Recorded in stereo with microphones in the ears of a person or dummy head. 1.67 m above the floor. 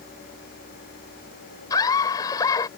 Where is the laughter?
25° left (ahead or behind).